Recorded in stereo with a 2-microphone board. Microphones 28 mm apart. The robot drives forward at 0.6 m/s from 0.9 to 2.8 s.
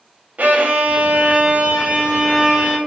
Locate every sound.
0.4 s a violin: 65° right (ahead or behind), 0.6 m; by 2.8 s 25° right (ahead or behind), 1.3 m